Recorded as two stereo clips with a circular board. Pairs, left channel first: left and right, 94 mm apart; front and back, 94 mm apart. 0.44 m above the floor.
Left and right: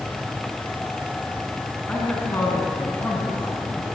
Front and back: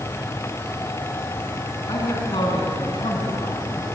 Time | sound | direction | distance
1.9 | a man speaking | 25° left | 5.5 m